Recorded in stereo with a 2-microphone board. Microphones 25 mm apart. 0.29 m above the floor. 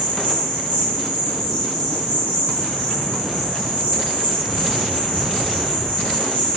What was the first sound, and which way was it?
An insect, 60° left (ahead or behind).